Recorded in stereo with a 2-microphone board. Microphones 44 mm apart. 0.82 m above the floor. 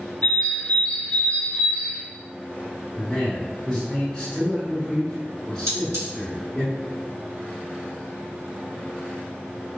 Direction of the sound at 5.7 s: 90° right.